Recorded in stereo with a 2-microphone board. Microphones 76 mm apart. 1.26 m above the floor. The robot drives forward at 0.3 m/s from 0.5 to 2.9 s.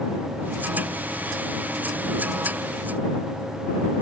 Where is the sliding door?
I don't hear a sliding door.